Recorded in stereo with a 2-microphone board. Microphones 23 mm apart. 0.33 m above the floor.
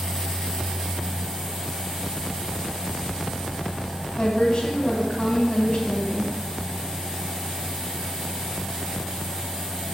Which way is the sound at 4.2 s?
50° left (ahead or behind).